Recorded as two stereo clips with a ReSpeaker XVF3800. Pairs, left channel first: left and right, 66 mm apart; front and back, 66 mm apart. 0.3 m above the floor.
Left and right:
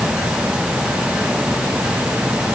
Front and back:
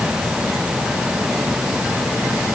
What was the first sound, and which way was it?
Only background noise.